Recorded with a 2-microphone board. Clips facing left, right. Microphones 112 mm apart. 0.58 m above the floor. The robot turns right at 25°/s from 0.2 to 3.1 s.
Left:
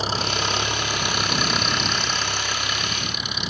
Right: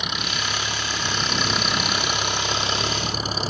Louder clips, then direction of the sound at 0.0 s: Left 4 dB; 145° left.